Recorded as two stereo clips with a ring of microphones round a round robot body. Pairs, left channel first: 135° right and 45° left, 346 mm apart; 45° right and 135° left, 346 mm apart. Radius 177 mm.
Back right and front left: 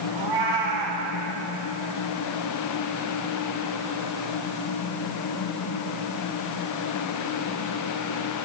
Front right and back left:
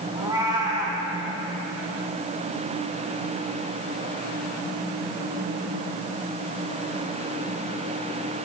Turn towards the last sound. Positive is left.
turn(degrees=55)